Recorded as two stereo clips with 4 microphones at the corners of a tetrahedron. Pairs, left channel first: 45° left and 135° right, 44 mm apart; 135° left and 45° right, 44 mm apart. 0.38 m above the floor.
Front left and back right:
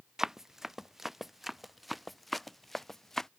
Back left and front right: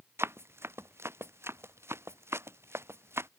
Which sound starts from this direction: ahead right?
Running footsteps, at 0.2 s.